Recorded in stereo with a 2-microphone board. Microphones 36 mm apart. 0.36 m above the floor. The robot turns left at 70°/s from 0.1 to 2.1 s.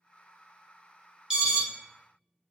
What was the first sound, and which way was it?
An alarm, 20° right (ahead or behind).